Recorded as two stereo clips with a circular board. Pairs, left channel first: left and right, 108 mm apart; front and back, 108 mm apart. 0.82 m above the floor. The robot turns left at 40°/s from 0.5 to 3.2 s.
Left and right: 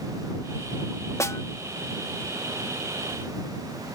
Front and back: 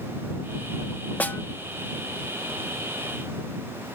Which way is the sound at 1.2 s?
60° left.